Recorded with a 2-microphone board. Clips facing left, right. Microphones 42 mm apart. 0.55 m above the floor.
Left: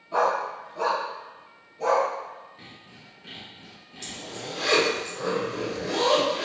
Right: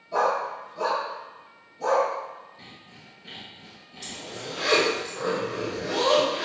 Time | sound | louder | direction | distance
0.1 | a dog barking | even | 40° left (ahead or behind) | 1.6 m
2.6 | sawing | even | 65° left (ahead or behind) | 1.8 m
4.0 | a zipper | even | 5° right (ahead or behind) | 0.9 m